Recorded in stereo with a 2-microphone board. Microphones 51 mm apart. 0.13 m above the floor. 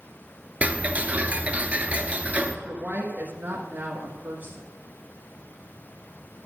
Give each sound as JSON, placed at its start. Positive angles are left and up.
{"t": 0.6, "sound": "ticking", "side_deg": -30, "distance_m": 0.8}
{"t": 2.6, "sound": "a woman speaking", "side_deg": -35, "distance_m": 1.4}